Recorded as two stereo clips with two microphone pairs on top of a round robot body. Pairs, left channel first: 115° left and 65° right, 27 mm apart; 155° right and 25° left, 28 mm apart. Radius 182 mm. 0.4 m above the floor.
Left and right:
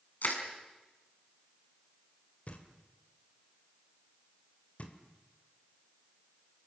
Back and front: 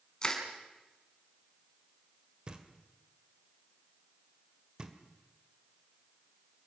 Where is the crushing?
140° left, 4 m.